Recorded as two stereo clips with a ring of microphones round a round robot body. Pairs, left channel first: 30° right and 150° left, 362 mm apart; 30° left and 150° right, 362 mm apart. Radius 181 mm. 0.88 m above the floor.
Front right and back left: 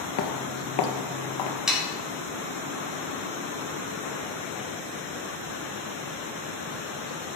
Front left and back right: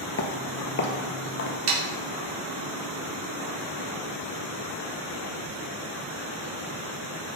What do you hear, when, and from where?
0.2 s footsteps: 10° right, 1.0 m; by 1.6 s 25° right, 1.6 m
1.7 s sawing: 120° right, 3 m